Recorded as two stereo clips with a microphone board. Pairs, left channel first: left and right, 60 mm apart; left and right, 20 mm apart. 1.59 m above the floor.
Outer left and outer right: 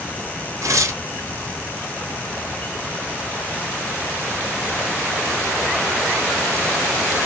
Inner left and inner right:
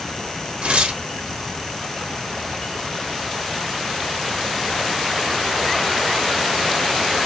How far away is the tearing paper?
About 0.7 m.